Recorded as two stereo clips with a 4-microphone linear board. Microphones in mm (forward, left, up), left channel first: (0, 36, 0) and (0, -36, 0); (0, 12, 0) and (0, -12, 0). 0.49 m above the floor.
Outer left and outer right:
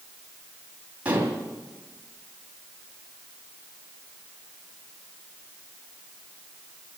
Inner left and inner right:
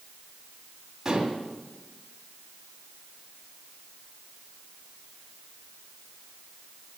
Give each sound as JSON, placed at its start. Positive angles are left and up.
{"t": 1.1, "sound": "dishes clattering", "side_deg": -20, "distance_m": 2.5}